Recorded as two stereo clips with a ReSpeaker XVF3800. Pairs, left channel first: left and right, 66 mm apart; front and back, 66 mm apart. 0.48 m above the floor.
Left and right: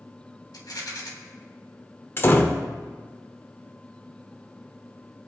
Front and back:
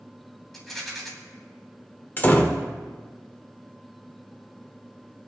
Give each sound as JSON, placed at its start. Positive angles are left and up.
{"t": 0.5, "sound": "a rattle", "azimuth_deg": 85, "distance_m": 2.5}
{"t": 2.2, "sound": "a door slam", "azimuth_deg": 45, "distance_m": 1.1}